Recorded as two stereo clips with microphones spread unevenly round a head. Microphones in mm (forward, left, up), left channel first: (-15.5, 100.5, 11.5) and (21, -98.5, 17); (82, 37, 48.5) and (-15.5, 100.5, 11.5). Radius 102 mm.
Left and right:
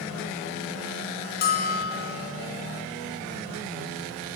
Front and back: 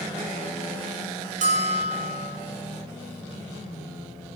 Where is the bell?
145° left, 7.5 m.